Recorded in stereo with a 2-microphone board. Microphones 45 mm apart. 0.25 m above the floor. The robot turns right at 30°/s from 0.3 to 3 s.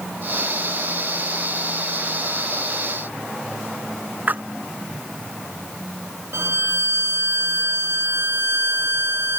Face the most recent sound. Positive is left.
turn(degrees=-65)  # may be behind; listen again after turning